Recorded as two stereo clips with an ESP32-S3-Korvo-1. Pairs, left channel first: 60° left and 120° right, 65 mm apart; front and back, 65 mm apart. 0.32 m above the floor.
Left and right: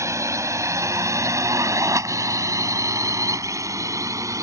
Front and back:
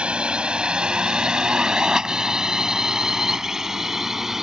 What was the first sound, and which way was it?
A drone, 110° right.